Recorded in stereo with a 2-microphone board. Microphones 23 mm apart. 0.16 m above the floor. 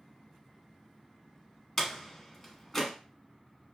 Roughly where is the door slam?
Centre.